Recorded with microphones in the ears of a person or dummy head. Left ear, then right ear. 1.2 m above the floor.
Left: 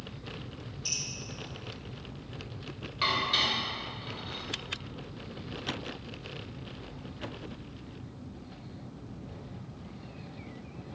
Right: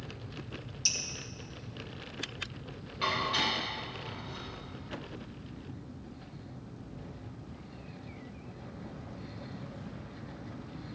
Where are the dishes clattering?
20° left (ahead or behind), 3.5 m.